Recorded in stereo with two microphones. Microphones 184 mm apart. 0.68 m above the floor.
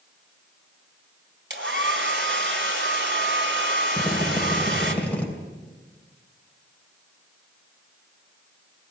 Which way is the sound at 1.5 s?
80° right.